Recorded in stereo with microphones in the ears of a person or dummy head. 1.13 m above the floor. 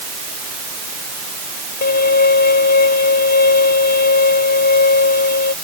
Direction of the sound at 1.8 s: 50° left (ahead or behind).